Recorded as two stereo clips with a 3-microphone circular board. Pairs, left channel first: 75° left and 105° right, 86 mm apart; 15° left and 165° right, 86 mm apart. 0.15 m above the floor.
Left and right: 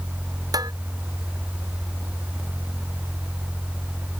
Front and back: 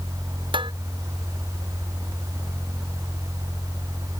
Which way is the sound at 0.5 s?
145° right.